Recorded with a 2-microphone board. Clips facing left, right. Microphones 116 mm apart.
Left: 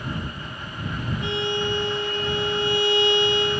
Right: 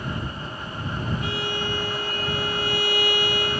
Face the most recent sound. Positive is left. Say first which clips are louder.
# left 3 dB
turn(degrees=25)  # may be behind; listen again after turning